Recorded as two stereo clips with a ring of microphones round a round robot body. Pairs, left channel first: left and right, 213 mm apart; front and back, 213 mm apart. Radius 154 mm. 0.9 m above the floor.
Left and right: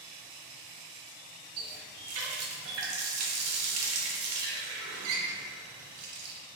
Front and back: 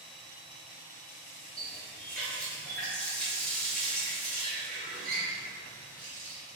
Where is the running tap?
85° right, 0.5 m.